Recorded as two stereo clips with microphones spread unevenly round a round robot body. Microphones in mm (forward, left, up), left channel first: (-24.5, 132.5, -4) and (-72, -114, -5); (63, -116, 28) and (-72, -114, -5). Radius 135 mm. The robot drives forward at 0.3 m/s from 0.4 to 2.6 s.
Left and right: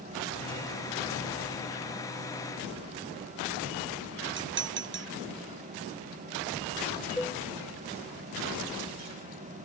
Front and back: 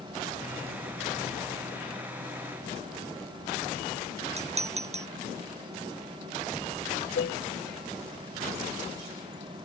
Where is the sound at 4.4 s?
145° right.